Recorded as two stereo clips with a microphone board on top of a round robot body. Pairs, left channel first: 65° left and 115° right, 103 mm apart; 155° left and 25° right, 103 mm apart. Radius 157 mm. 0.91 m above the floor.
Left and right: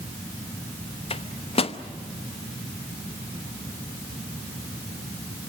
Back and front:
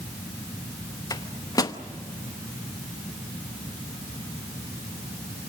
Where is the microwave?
100° left, 1.1 m.